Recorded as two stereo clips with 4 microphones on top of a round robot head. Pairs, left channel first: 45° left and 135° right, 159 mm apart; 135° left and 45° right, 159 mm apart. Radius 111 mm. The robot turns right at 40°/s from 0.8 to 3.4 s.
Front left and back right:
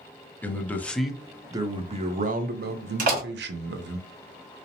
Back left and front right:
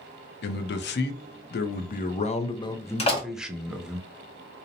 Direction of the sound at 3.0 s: 175° right.